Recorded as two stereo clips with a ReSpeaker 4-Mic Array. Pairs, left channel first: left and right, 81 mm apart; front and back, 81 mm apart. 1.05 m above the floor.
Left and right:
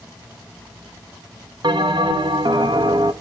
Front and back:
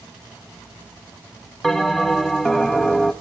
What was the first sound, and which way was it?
A bell, 85° right.